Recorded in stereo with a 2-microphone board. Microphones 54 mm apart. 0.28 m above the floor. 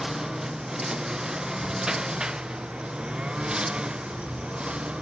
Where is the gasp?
I don't hear a gasp.